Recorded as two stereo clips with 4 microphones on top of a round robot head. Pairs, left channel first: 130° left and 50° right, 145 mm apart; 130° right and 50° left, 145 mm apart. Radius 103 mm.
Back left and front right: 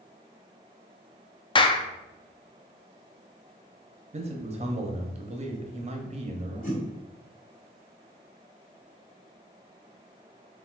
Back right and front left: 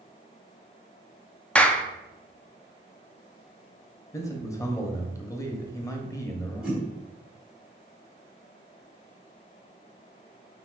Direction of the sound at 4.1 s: 70° right.